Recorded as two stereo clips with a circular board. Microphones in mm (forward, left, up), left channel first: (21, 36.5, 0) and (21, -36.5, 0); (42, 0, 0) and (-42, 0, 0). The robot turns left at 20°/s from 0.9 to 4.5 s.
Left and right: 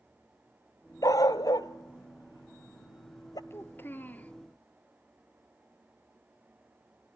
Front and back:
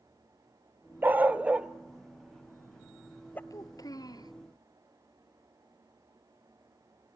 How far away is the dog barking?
About 0.7 m.